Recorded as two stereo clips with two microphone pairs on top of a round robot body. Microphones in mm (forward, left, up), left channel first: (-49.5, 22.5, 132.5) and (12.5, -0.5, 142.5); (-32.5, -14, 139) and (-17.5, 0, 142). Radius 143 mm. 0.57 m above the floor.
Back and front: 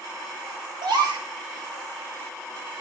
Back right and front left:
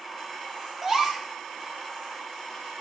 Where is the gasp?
25° right, 2 m.